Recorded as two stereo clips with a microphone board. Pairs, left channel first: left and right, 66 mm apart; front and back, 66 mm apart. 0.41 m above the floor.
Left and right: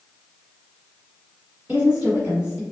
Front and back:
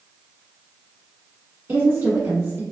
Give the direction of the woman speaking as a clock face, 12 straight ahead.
5 o'clock.